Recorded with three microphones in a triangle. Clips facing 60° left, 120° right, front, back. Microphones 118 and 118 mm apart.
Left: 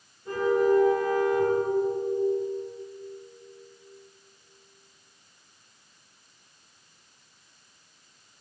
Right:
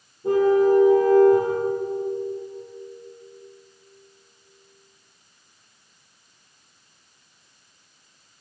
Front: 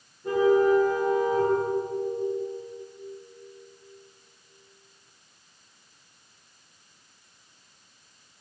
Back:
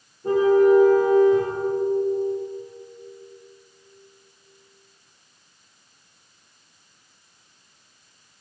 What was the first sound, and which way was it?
A car horn, 125° right.